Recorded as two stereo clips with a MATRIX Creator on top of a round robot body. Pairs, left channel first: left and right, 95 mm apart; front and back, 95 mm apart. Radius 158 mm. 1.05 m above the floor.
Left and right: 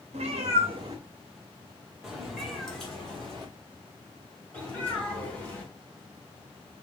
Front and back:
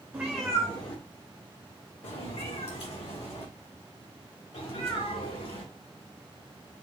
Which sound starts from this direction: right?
A cat meowing, at 0.1 s.